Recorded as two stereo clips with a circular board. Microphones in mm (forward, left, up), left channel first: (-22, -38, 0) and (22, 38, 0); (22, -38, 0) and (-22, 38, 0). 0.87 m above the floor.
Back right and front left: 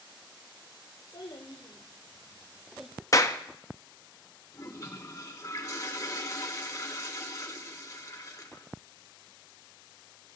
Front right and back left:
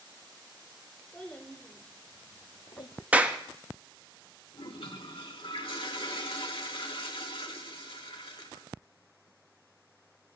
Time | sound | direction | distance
1.1 | a child speaking | 150° right | 1.7 m
3.1 | a clap | 170° right | 0.7 m
4.5 | a toilet flushing | 65° right | 1.3 m